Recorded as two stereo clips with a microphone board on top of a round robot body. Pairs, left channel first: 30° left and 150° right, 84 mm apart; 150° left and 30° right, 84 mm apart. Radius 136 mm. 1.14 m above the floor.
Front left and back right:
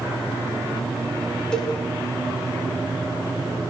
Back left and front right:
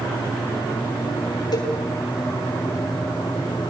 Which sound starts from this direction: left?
A cowbell, at 1.5 s.